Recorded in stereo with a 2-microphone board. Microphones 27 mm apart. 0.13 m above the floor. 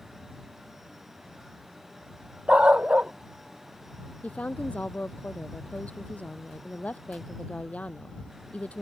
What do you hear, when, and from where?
2.5 s a dog barking: 45° right (ahead or behind)
4.2 s a woman speaking: 55° left (ahead or behind)